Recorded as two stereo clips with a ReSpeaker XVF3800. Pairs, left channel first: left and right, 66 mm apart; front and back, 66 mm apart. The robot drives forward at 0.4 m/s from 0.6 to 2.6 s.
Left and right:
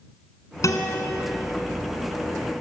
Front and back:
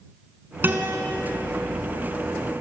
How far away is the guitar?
About 3 m.